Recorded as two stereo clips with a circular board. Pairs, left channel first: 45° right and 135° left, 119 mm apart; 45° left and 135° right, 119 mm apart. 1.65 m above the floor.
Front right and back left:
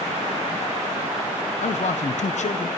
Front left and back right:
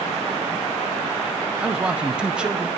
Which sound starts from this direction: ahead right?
A man speaking, at 1.6 s.